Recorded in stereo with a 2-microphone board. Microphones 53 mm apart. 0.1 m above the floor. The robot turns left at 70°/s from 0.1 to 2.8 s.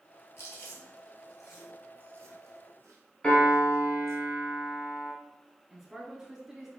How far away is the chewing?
About 1.0 m.